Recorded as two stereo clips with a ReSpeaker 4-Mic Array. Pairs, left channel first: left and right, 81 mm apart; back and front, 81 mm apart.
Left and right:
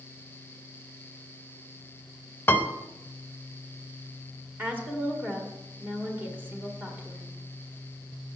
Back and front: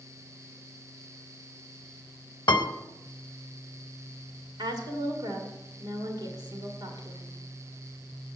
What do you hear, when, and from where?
2.5 s a piano: 155° left, 0.7 m
4.6 s a woman speaking: 20° right, 1.8 m